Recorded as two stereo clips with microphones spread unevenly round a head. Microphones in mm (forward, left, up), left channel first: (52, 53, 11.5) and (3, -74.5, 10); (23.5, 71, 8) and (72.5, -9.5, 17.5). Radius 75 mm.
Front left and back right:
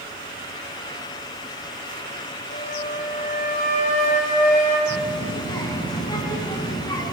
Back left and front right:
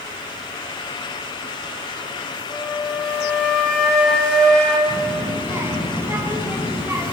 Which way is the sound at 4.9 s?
5° left.